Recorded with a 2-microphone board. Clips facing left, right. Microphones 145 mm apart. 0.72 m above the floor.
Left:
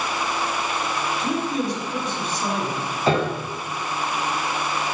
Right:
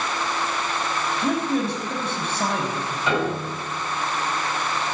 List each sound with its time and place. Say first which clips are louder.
1.2 s a man speaking: right 3 dB; 65° right (ahead or behind), 5.5 m
3.1 s a piano: left 3 dB; 35° left (ahead or behind), 5 m